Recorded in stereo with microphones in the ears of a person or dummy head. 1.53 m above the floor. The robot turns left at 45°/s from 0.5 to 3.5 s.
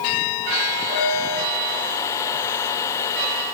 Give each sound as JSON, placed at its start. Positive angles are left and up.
{"t": 0.9, "sound": "a piano", "side_deg": 30, "distance_m": 9.5}